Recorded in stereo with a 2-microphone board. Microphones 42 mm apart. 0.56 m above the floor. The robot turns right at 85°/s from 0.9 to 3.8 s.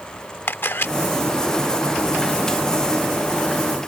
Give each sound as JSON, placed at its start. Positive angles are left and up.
{"t": 0.5, "sound": "a camera shutter", "side_deg": 60}